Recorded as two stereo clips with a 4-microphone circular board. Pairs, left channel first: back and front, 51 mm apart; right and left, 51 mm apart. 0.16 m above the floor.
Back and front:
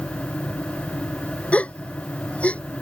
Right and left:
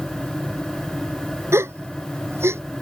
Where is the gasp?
115° left.